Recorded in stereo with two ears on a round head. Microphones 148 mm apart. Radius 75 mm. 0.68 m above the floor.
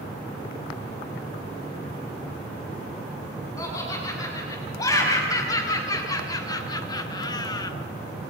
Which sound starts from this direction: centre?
Laughter, at 3.6 s.